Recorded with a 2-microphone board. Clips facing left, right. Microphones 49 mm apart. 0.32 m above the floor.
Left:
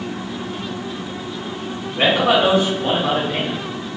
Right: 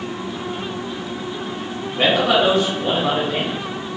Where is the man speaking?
20° left (ahead or behind), 1.1 m.